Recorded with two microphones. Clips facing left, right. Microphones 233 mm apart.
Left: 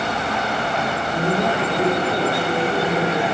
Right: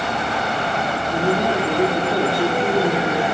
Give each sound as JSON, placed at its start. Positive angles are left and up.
{"t": 1.1, "sound": "a man speaking", "side_deg": -20, "distance_m": 2.5}